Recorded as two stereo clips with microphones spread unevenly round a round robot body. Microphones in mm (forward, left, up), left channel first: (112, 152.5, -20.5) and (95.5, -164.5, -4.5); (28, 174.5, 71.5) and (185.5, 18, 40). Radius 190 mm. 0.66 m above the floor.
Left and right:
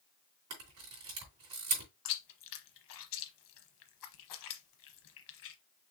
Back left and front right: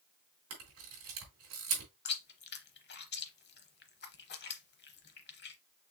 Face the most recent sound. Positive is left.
turn(degrees=110)